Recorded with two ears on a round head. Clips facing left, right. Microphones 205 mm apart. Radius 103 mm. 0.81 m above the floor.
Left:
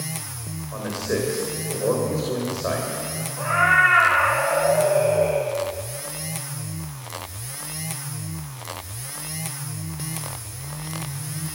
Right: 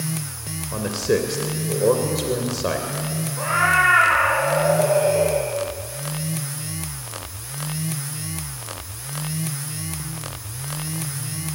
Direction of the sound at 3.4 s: 40° right (ahead or behind).